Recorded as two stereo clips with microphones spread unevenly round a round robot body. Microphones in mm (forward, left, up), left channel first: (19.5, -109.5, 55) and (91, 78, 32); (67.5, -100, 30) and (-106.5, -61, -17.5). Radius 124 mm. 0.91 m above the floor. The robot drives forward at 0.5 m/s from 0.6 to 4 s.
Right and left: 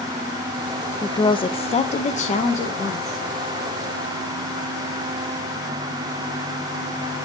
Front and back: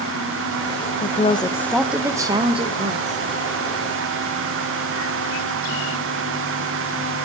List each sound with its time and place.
1.0 s a woman speaking: 40° right, 0.6 m; by 3.2 s 170° right, 1.1 m